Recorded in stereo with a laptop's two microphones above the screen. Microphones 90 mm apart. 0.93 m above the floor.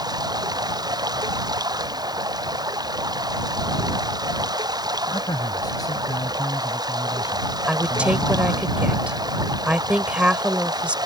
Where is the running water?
50° right (ahead or behind).